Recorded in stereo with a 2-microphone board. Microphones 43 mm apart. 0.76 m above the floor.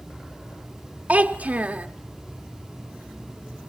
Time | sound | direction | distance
1.1 | a child speaking | 35° right (ahead or behind) | 1.0 m